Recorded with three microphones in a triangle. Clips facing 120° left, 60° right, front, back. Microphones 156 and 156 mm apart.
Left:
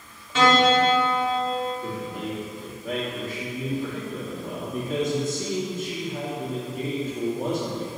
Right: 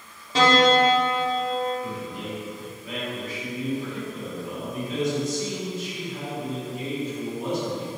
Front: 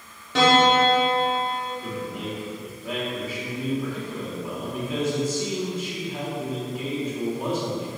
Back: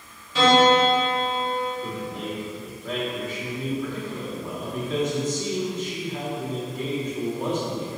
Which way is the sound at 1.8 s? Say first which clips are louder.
Left 2 dB, even; 80° left.